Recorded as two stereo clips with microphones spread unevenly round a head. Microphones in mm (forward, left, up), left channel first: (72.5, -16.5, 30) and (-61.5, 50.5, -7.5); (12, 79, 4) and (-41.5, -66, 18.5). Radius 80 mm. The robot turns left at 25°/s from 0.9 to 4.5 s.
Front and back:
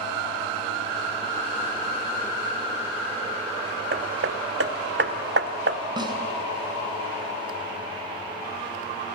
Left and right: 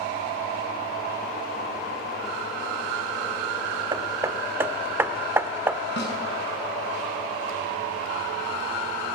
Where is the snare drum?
90° left, 6.5 m.